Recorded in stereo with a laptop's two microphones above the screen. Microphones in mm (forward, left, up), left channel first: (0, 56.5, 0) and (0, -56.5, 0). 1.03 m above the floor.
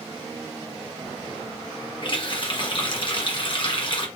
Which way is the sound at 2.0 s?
45° left (ahead or behind).